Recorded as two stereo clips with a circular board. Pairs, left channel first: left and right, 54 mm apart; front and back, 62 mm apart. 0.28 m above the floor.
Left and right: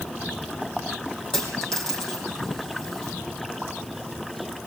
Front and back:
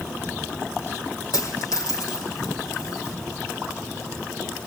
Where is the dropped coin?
10° left, 4.5 m.